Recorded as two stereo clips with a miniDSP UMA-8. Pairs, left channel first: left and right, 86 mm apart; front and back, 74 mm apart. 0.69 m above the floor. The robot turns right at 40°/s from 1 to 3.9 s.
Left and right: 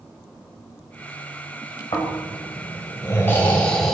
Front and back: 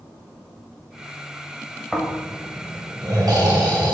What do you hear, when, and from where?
1.9 s snoring: 100° left, 2.5 m; by 3.9 s straight behind, 2.5 m